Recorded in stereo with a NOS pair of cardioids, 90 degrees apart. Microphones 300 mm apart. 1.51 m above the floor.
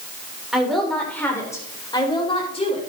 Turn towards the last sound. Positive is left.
turn(degrees=20)